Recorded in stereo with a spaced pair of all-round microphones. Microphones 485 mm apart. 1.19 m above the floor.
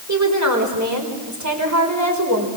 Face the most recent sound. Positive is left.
turn(degrees=-35)  # may be behind; listen again after turning